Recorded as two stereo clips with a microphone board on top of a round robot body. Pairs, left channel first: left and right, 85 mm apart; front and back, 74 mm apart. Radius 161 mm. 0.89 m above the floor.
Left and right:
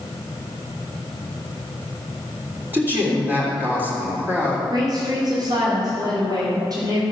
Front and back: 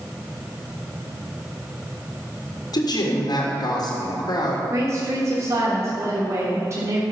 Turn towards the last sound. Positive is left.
turn(degrees=-130)